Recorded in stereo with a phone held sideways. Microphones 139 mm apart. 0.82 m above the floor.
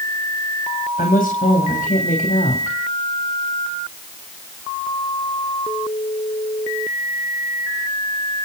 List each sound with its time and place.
1.0 s a woman speaking: 75° left (ahead or behind), 3 m